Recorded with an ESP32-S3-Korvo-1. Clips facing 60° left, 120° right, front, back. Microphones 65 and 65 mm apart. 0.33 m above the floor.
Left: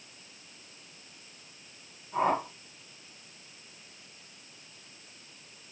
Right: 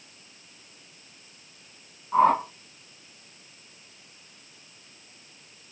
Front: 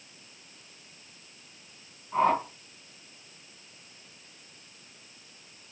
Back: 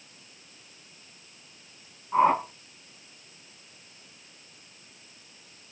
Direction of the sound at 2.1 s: 110° right.